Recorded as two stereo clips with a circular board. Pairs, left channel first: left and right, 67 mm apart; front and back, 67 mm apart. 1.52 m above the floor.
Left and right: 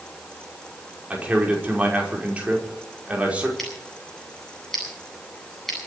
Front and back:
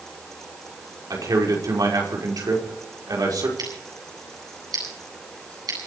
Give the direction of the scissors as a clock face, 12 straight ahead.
6 o'clock.